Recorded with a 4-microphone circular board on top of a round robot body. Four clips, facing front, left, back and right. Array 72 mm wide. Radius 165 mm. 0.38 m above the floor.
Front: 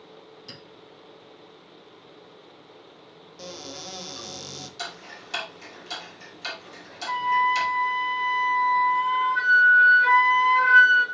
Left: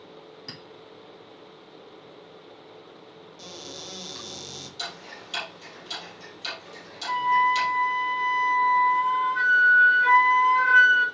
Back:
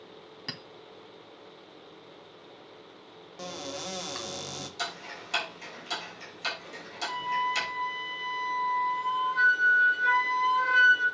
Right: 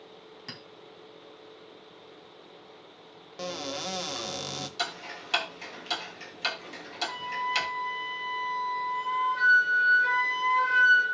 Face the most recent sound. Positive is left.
turn(degrees=30)